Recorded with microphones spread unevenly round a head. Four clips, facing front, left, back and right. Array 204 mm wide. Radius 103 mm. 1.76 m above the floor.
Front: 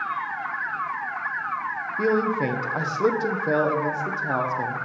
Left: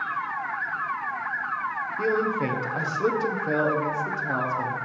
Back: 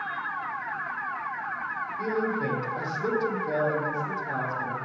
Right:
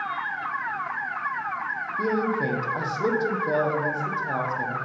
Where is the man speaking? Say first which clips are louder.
Even, front 6 dB; straight ahead, 1.1 m.